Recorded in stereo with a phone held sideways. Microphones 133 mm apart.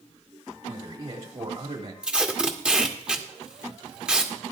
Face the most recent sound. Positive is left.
turn(degrees=-5)  # may be behind; listen again after turning